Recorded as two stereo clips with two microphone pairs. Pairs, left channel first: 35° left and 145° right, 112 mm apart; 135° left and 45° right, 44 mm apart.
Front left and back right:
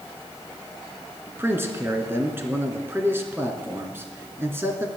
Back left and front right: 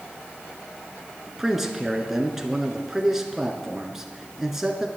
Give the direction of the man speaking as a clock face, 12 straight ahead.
4 o'clock.